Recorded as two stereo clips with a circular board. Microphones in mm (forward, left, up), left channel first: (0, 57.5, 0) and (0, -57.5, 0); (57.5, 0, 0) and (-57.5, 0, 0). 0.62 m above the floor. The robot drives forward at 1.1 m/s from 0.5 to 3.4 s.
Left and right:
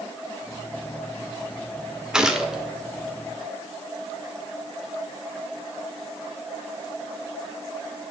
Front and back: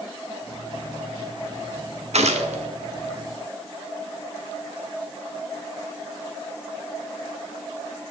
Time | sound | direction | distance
2.1 | a gunshot | 175° right | 1.0 m